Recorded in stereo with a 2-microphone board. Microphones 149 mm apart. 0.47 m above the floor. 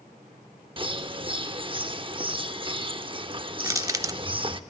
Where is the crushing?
20° right (ahead or behind), 0.7 m.